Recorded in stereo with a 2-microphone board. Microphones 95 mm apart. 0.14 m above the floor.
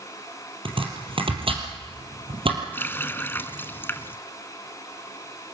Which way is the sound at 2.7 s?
25° left (ahead or behind).